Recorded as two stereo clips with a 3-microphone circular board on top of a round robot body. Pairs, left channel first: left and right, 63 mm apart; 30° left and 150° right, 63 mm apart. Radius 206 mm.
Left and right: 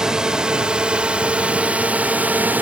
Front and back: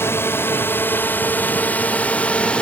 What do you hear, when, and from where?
0.0 s a drone: 10° right; by 2.6 s 35° right